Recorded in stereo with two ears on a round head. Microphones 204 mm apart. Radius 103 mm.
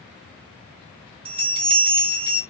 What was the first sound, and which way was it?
A bell, 25° right (ahead or behind).